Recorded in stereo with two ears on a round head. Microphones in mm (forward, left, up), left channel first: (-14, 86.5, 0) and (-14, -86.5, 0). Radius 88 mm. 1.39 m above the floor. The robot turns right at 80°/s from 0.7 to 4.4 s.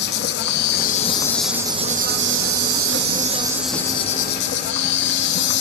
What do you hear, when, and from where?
0.0 s an insect: 120° left, 0.7 m; by 5.6 s 55° left, 0.7 m